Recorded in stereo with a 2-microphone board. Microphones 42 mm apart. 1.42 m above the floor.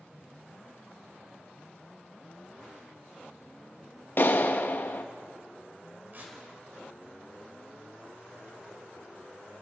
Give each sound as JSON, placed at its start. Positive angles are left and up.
{"t": 4.2, "sound": "a clap", "side_deg": 50, "distance_m": 1.2}
{"t": 6.1, "sound": "tearing paper", "side_deg": -45, "distance_m": 4.5}